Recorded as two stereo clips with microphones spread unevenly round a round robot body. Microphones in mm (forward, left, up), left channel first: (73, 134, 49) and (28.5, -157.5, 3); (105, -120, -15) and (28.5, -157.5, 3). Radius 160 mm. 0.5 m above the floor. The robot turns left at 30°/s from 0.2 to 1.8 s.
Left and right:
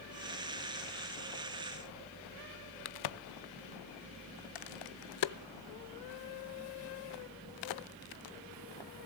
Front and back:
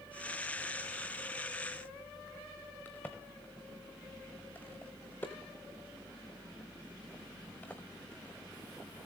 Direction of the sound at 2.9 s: 105° left.